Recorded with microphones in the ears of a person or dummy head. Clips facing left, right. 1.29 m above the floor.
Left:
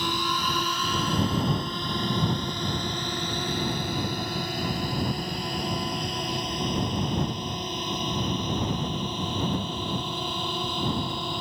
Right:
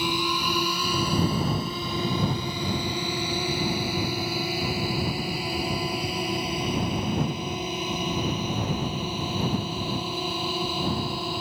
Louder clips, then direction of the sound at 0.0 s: Right 2 dB; 10° right (ahead or behind).